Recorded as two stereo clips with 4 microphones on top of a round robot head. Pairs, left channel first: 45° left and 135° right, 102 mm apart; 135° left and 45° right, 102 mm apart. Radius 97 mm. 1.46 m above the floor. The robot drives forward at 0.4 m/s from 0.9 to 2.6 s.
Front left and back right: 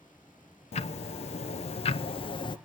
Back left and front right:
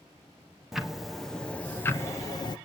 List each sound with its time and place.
0.7 s ticking: 40° left, 0.9 m; by 2.6 s 90° left, 0.6 m